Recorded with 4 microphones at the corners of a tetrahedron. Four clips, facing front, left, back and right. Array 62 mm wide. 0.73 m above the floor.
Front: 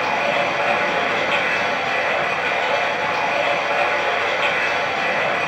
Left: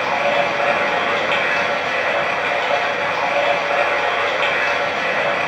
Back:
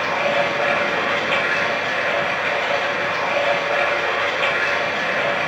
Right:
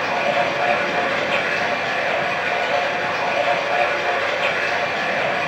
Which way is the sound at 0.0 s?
65° left.